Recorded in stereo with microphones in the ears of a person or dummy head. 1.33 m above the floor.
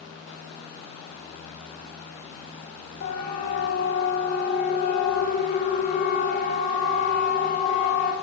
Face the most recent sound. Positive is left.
turn(degrees=40)  # may be behind; listen again after turning